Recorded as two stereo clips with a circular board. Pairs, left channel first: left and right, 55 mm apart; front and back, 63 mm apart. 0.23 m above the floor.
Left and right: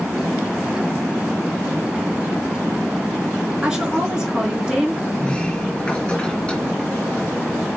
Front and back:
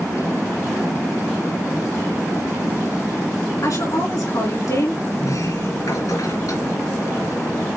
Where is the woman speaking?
15° right, 4 m.